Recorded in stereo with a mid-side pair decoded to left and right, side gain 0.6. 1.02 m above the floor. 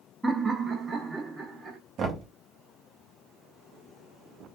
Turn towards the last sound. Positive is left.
turn(degrees=-50)